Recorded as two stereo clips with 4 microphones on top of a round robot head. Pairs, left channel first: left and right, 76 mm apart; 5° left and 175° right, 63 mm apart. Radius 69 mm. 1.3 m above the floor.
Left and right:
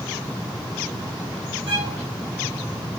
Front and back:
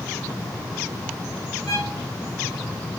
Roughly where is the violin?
Right.